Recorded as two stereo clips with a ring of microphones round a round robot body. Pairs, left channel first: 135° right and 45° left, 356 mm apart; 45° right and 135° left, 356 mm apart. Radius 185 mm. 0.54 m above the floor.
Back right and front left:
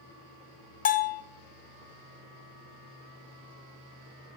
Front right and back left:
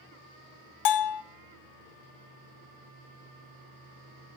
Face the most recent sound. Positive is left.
turn(degrees=-70)